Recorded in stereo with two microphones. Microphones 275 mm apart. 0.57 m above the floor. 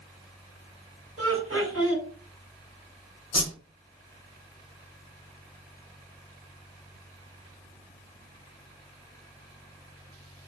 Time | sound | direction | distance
1.2 | laughter | 65° right (ahead or behind) | 2 m
3.3 | a whoosh | 80° left | 1.5 m